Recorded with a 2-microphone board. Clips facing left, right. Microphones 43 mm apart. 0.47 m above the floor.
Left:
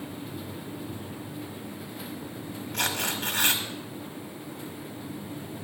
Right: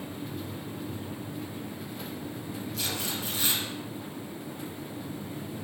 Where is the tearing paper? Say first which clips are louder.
Left 7 dB; 80° left, 1.6 m.